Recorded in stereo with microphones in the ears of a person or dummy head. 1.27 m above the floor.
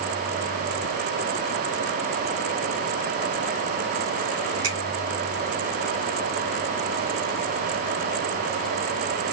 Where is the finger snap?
45° right (ahead or behind), 4 m.